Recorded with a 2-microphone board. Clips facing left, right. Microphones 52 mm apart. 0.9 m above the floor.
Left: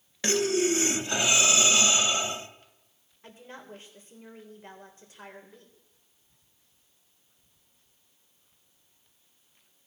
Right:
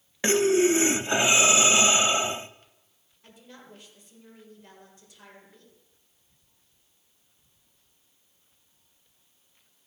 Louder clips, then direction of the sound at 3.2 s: Left 4 dB; 35° left (ahead or behind).